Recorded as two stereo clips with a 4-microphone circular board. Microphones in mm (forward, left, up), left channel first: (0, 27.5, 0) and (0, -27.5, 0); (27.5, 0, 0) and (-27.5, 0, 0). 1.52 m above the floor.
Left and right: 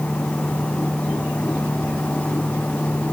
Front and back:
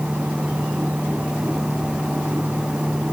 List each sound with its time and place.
Only background noise.